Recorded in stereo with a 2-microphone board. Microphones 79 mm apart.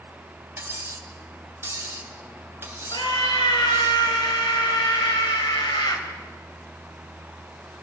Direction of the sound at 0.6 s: 30° right (ahead or behind).